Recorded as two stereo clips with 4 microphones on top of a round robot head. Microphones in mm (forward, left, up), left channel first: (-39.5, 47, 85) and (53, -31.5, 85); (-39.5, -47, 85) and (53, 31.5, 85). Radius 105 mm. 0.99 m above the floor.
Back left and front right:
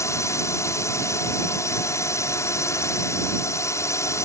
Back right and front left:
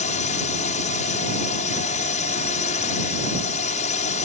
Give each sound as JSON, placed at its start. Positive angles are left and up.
{"t": 0.0, "sound": "a drone", "azimuth_deg": -155}